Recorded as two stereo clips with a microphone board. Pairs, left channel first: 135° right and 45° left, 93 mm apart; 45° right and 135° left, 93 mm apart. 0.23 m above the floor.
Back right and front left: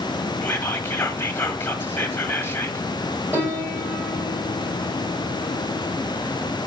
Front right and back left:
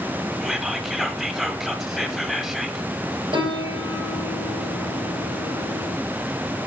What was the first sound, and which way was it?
Whispering, 140° right.